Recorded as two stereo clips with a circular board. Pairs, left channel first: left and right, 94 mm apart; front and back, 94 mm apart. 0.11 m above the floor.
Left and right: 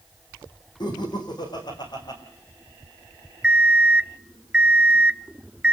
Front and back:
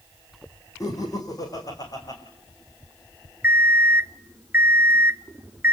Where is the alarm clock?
155° right, 0.6 m.